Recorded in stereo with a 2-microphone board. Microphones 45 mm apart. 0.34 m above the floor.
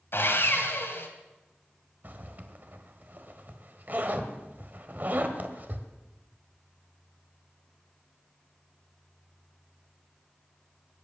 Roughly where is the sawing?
Left.